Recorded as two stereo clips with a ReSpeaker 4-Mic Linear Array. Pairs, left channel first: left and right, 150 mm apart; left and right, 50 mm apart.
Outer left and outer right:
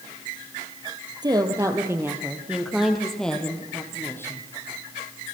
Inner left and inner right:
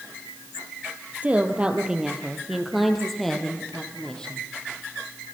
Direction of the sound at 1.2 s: 30° right (ahead or behind).